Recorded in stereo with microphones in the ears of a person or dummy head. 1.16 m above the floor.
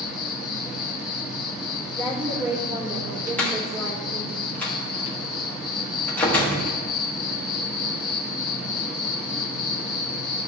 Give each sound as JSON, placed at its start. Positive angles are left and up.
{"t": 0.0, "sound": "an insect", "side_deg": 0, "distance_m": 1.3}
{"t": 1.9, "sound": "a woman speaking", "side_deg": -15, "distance_m": 3.0}
{"t": 3.4, "sound": "a door slam", "side_deg": 15, "distance_m": 1.2}